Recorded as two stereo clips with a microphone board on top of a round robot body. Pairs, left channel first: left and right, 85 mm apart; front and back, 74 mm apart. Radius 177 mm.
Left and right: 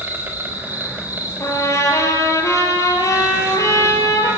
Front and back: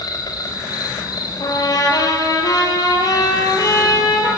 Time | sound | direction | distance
0.0 | an insect | 25° right | 4 m
1.4 | a trumpet | 35° left | 5.5 m